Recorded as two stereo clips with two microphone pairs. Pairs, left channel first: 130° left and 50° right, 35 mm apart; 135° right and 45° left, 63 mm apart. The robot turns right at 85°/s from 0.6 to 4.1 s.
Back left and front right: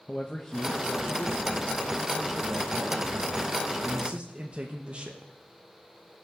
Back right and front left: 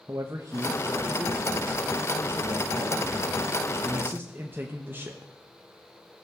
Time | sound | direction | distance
0.1 | a man speaking | 60° left | 1.0 m